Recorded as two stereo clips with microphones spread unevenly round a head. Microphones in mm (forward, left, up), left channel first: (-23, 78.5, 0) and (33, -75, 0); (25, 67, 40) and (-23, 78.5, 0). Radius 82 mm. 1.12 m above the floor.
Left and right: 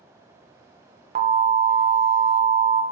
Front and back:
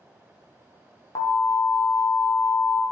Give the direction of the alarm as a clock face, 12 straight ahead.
2 o'clock.